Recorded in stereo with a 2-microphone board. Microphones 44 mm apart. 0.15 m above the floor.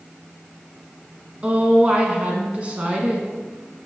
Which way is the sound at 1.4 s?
30° right (ahead or behind).